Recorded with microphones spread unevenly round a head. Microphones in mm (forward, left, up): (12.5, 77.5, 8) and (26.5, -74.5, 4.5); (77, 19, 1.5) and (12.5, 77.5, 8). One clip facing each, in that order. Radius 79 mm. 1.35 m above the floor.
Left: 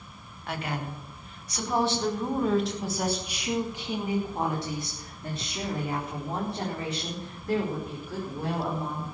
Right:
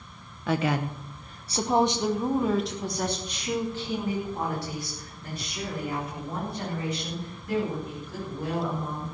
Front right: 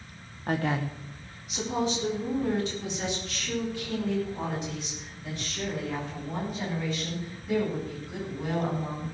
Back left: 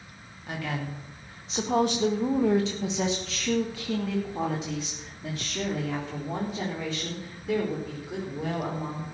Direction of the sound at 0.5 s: 110° right.